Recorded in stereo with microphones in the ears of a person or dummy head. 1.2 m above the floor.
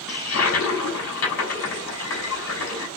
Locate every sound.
0.1 s a toilet flushing: 75° left (ahead or behind), 3 m